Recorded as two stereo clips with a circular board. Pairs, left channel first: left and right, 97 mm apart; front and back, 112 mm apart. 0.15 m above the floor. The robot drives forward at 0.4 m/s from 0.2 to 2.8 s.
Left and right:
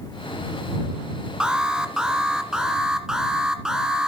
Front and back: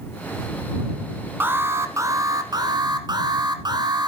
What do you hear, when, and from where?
1.4 s an alarm: 155° right, 1.2 m; by 4.1 s 170° right, 1.4 m